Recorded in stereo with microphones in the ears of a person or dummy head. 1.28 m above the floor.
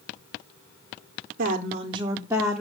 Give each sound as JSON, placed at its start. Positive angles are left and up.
{"t": 1.4, "sound": "a woman speaking", "side_deg": -50, "distance_m": 0.7}